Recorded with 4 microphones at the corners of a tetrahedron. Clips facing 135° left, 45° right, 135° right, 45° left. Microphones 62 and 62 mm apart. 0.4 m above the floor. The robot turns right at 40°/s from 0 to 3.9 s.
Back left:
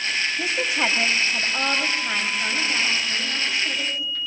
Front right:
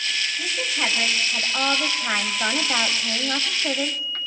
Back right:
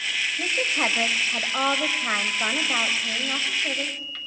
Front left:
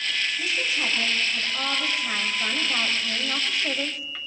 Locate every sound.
0.4 s a woman speaking: 170° right, 1.7 m; by 4.2 s 30° right, 1.7 m